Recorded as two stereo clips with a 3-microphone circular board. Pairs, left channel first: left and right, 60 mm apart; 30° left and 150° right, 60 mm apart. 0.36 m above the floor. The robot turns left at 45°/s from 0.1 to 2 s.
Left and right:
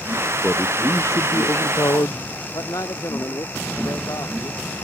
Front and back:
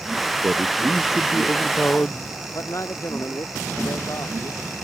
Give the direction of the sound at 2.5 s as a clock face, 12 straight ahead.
10 o'clock.